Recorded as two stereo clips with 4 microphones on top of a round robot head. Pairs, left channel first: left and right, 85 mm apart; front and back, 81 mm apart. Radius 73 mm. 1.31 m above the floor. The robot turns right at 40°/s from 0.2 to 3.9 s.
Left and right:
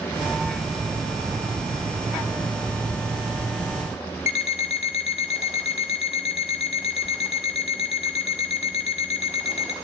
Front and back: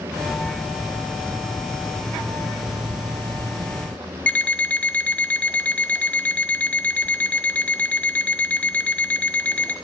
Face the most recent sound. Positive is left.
turn(degrees=70)